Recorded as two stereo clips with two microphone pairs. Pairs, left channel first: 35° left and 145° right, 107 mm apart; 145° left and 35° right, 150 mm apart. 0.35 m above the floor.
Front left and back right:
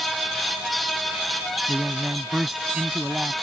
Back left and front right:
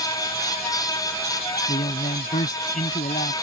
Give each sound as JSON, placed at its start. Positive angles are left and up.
{"t": 1.7, "sound": "a man speaking", "azimuth_deg": 135}